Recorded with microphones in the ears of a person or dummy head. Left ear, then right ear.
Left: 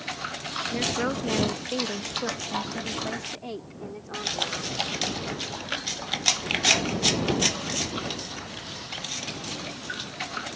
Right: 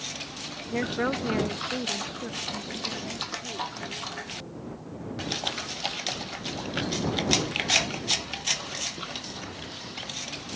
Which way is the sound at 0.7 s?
25° right (ahead or behind).